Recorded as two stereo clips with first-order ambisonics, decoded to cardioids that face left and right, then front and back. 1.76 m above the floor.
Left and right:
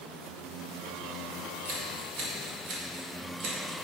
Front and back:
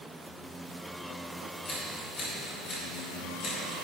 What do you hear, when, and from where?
1.6 s scissors: 60° right, 2 m